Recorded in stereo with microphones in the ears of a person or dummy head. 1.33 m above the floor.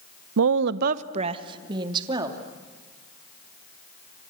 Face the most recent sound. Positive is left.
turn(degrees=-20)  # may be behind; listen again after turning